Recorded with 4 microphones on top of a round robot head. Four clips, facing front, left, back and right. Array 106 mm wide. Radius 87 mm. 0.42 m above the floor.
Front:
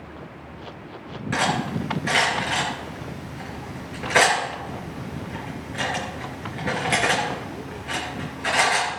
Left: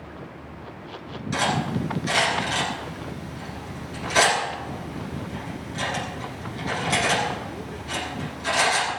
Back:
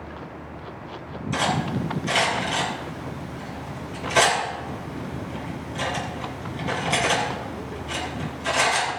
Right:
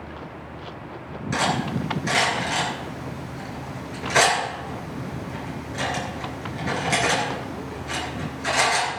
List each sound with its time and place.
1.3 s cutlery clinking: 25° right, 5.5 m